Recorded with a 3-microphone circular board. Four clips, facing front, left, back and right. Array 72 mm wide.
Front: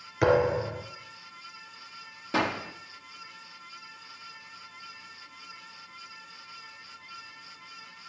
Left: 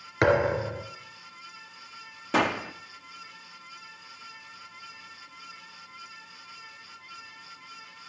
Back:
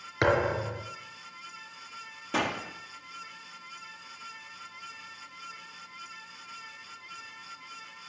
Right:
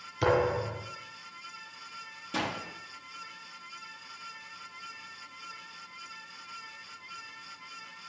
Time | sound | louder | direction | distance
0.2 | a thud | left 3 dB, front 3 dB | 110° left | 3.5 m
2.3 | a gunshot | left 9 dB, front 2 dB | 80° left | 0.9 m